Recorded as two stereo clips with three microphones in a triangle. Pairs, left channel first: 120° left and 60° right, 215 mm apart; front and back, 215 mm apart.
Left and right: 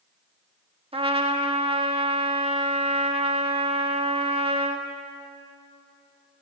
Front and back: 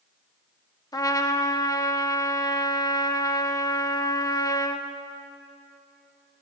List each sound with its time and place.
0.9 s a trumpet: 50° right, 0.5 m